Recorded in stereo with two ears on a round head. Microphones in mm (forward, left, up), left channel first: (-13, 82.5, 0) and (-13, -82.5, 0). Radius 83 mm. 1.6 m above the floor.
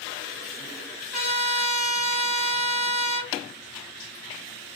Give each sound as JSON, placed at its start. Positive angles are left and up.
{"t": 1.1, "sound": "a trumpet", "side_deg": -50, "distance_m": 1.6}